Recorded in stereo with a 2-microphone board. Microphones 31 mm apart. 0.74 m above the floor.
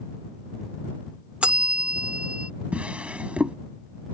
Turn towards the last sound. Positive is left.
turn(degrees=-45)  # may be behind; listen again after turning